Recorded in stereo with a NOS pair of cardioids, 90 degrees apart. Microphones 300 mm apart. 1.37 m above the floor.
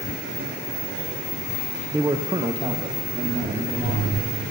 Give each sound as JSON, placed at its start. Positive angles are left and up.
{"t": 1.9, "sound": "a man speaking", "azimuth_deg": -5, "distance_m": 0.7}